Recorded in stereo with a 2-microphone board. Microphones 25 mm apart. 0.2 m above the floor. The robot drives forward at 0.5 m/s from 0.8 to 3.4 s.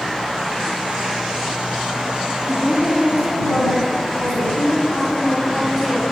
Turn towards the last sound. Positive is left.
turn(degrees=-10)  # may be behind; listen again after turning